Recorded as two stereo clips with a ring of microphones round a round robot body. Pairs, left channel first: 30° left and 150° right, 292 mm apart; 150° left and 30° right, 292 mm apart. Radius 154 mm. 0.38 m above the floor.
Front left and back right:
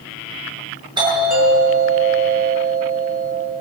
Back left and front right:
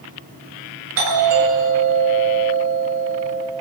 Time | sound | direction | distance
1.0 | a doorbell | 75° right | 9 m